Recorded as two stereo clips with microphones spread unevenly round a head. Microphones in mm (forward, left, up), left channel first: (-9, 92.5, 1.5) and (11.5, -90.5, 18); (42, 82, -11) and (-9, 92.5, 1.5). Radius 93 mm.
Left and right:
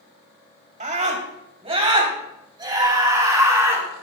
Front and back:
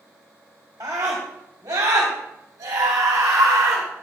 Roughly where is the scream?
Behind right.